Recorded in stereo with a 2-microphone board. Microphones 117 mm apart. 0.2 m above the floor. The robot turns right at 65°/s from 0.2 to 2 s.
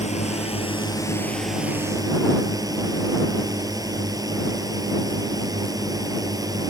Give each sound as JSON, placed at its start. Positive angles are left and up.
{"t": 0.0, "sound": "a drone", "azimuth_deg": 95}